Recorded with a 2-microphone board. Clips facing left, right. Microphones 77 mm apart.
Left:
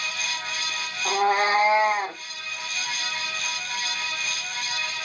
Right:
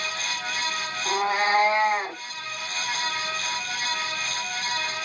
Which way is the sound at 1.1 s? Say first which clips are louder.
Left 2 dB; 50° left (ahead or behind).